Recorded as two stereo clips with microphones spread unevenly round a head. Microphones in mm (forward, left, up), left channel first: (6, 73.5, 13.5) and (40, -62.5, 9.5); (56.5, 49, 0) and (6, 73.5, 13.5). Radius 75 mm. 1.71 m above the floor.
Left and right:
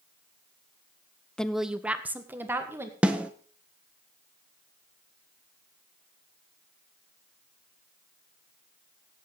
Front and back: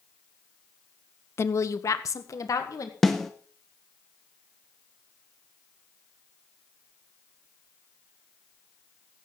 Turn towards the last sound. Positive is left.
turn(degrees=-150)